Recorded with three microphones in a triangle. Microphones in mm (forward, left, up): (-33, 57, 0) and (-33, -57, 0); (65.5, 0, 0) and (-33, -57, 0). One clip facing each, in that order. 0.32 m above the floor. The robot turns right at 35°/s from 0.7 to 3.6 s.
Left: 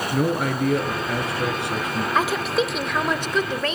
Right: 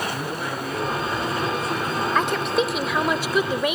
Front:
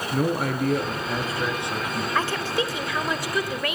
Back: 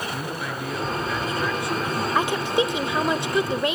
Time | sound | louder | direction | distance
0.1 | a man speaking | left 6 dB, front 6 dB | 65° left | 4 m
2.1 | a woman speaking | left 1 dB, back 4 dB | 165° left | 0.9 m